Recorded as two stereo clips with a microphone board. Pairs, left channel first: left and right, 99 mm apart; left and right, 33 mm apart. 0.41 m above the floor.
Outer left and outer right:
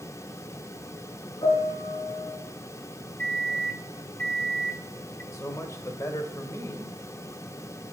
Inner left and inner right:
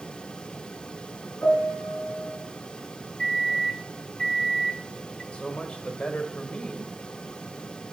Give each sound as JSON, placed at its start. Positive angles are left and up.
{"t": 1.4, "sound": "a piano", "side_deg": 55, "distance_m": 6.5}
{"t": 3.2, "sound": "a microwave", "side_deg": 15, "distance_m": 1.2}
{"t": 5.3, "sound": "a man speaking", "side_deg": 30, "distance_m": 1.5}